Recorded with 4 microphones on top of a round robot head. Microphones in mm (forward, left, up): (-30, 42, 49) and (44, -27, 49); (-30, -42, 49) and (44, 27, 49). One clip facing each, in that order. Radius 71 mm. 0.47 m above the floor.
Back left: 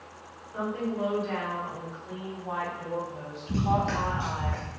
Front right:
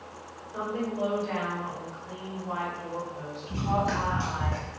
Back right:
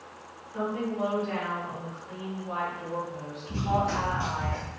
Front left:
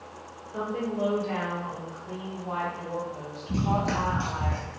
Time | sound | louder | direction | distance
0.5 | a woman speaking | even, even | 25° left | 1.6 m
3.5 | running footsteps | back left 1 dB, even | 95° left | 0.5 m